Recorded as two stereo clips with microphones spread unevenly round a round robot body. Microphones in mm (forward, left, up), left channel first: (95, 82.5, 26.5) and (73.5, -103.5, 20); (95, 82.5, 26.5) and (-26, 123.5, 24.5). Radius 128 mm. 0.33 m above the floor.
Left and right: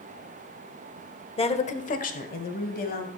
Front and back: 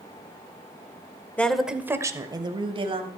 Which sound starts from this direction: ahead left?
A woman speaking, at 1.4 s.